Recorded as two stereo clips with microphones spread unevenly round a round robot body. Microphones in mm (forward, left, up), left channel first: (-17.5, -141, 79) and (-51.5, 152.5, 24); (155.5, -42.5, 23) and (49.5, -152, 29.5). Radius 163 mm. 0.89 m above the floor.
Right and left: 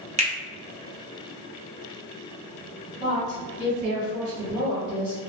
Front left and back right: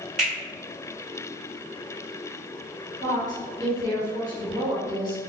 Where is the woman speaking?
90° left, 1.5 m.